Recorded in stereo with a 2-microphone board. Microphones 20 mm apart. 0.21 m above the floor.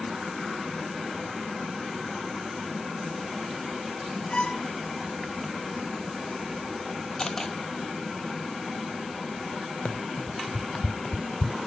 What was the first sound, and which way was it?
A violin, 45° left (ahead or behind).